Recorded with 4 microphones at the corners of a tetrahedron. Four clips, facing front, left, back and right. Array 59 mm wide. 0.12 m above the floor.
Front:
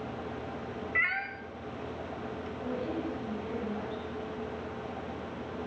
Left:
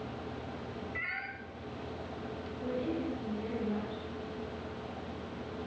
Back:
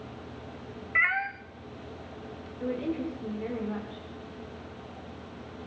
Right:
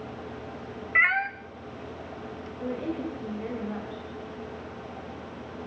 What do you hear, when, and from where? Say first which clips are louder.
0.9 s a cat meowing: right 17 dB, back 4 dB; 115° right, 1.6 m
2.6 s a woman speaking: right 3 dB, back 4 dB; 135° right, 10 m